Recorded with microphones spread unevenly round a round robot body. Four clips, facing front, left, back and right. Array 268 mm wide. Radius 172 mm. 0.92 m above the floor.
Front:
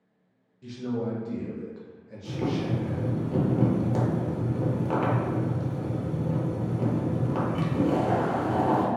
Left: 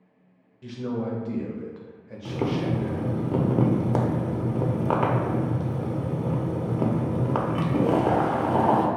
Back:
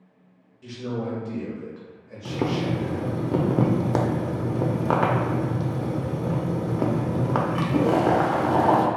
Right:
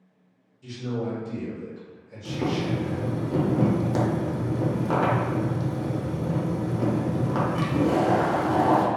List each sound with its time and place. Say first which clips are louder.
0.6 s a man speaking: left 1 dB, even; 115° left, 0.7 m
2.2 s boiling: even, back 3 dB; 170° left, 0.6 m